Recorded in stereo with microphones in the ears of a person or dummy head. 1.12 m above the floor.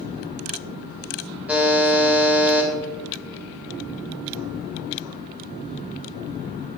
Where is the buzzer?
10° right (ahead or behind), 3.5 m.